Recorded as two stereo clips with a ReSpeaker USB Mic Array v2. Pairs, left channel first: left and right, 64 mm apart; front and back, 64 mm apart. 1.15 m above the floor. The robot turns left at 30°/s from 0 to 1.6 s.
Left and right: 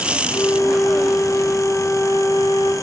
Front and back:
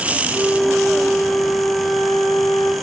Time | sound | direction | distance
0.3 | a flute | 110° left | 3.5 m